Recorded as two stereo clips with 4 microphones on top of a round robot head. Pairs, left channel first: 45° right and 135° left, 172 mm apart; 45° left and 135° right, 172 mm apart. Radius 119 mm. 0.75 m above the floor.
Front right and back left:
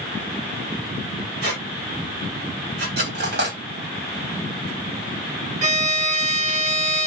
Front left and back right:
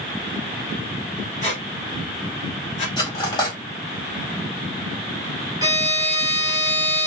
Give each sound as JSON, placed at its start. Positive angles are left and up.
{"t": 1.4, "sound": "a squeak", "azimuth_deg": 95, "distance_m": 1.8}
{"t": 3.0, "sound": "cutlery clinking", "azimuth_deg": 110, "distance_m": 1.6}
{"t": 5.6, "sound": "a violin", "azimuth_deg": 160, "distance_m": 1.0}